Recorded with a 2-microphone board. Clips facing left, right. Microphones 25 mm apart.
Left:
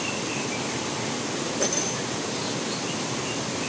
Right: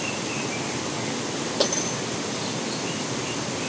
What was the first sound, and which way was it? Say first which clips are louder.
Breaking glass: right 4 dB; 75° right (ahead or behind).